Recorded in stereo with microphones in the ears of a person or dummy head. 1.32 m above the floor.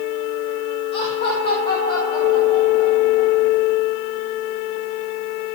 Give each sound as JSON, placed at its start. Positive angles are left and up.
{"t": 0.9, "sound": "laughter", "side_deg": 30, "distance_m": 5.5}